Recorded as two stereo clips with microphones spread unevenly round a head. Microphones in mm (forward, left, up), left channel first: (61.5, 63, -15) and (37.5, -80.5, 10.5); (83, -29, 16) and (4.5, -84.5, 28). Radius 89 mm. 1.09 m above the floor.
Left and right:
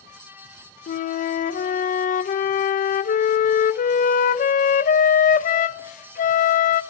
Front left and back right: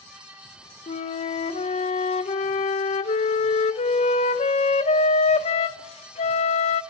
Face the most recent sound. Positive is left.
turn(degrees=50)